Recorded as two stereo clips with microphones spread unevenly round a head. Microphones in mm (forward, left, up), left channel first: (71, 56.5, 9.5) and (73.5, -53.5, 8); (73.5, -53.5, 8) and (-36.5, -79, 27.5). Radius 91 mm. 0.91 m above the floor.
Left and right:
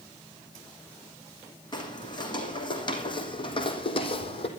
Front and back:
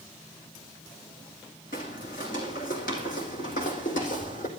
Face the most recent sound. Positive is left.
turn(degrees=60)